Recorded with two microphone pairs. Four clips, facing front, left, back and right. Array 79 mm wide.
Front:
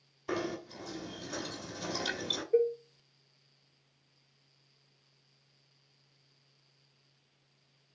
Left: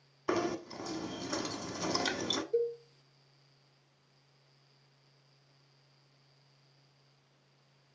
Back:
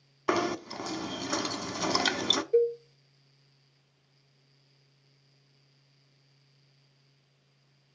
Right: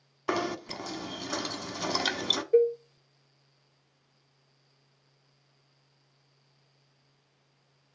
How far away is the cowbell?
About 0.9 m.